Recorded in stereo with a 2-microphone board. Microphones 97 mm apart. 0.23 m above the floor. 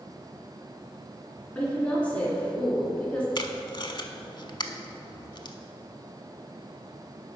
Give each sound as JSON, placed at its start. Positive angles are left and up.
{"t": 1.6, "sound": "a woman speaking", "side_deg": 15, "distance_m": 2.5}
{"t": 3.4, "sound": "tape being pulled", "side_deg": 50, "distance_m": 0.6}